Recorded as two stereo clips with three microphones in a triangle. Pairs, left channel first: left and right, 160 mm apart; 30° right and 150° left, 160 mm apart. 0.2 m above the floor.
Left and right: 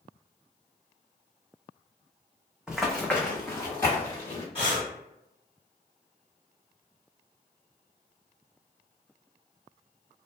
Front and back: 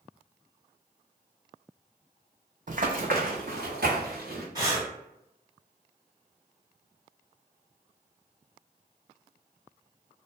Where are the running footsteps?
175° right, 0.6 m; by 4.5 s 155° left, 1.4 m.